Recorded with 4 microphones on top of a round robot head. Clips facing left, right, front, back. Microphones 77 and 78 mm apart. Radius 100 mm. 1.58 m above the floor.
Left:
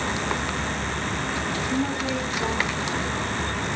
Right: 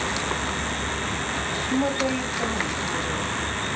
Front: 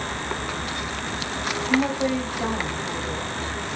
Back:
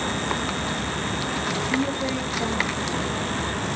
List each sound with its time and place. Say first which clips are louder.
1.7 s a woman speaking: right 4 dB, front 6 dB; 45° right, 2.5 m